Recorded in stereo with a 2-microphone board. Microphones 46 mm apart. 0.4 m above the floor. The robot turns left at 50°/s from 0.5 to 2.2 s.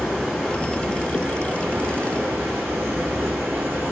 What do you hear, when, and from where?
0.0 s running water: 15° left, 1.7 m; by 3.9 s 70° right, 1.7 m